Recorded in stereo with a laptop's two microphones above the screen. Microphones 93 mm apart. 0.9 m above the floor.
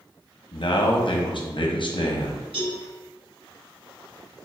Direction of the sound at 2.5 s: 75° right (ahead or behind).